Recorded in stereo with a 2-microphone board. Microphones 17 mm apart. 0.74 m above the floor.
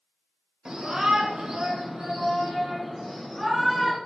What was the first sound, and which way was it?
A shout, 45° right (ahead or behind).